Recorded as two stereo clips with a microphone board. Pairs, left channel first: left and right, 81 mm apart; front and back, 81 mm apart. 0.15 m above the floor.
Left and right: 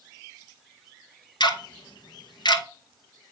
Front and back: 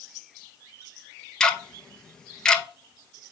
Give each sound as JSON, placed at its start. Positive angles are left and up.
{"t": 1.4, "sound": "ticking", "azimuth_deg": 80, "distance_m": 0.9}